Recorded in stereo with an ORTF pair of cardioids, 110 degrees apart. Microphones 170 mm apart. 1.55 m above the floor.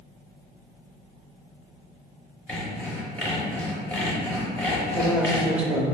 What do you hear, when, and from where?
2.5 s sawing: 10° left, 0.9 m
4.9 s a man speaking: 5° right, 0.6 m